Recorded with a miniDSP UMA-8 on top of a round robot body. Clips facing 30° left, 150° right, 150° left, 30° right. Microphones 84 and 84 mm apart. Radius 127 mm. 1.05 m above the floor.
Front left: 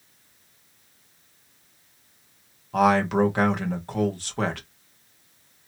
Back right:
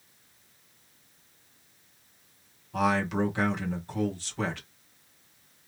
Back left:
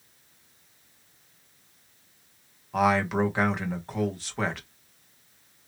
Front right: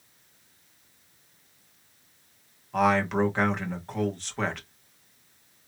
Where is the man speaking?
65° left, 1.8 m.